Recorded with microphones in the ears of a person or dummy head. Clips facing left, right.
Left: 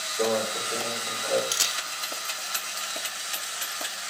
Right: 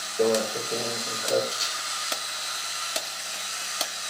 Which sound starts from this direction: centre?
A microwave, at 0.2 s.